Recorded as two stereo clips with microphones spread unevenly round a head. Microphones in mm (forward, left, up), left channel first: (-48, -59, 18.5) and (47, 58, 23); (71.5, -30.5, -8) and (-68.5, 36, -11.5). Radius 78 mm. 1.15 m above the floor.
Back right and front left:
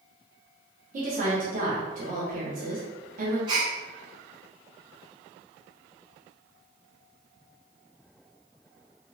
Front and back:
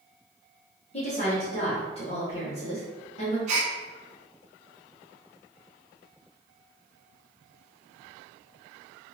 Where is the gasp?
110° left, 0.8 m.